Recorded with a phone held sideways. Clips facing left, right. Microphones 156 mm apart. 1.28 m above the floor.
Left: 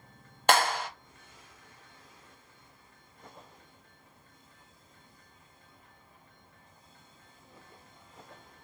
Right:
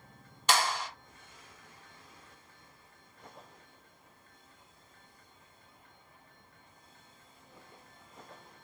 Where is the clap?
60° left (ahead or behind), 1.1 m.